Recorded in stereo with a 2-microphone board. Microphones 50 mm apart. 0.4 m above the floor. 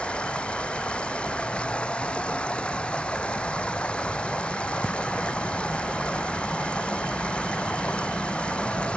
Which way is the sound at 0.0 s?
20° left (ahead or behind).